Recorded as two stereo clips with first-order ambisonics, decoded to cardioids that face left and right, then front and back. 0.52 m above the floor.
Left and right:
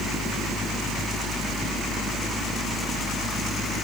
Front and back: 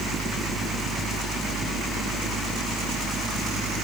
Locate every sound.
Only background noise.